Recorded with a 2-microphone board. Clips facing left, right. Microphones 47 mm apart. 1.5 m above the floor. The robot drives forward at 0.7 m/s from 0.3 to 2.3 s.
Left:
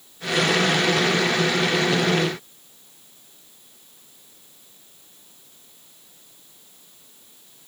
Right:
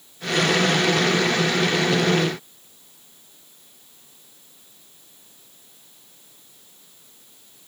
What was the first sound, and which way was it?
Only background noise.